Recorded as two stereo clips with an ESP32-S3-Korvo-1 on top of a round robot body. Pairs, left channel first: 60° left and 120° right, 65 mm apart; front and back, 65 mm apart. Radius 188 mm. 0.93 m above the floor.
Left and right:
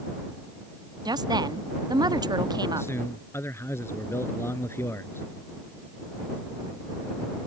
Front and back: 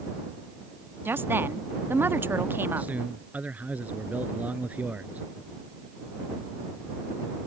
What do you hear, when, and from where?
1.1 s a woman speaking: 120° right
2.8 s a man speaking: 115° left